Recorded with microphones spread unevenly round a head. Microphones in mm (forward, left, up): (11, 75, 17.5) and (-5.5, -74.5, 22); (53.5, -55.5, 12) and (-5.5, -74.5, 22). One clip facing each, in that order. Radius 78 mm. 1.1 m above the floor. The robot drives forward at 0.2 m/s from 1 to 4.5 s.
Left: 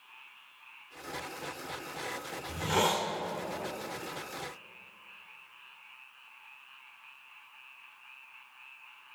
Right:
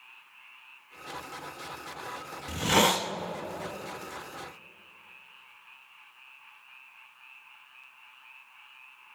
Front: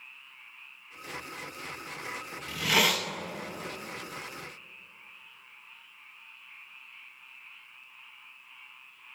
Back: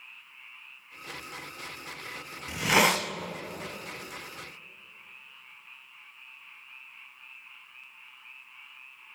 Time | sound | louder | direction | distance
2.5 | a hiss | right 4 dB, back 3 dB | 95° right | 0.7 m